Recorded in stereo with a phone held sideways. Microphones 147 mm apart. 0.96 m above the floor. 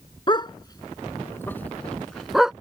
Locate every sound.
0.3 s a dog barking: 35° left (ahead or behind); by 2.5 s 5° right (ahead or behind)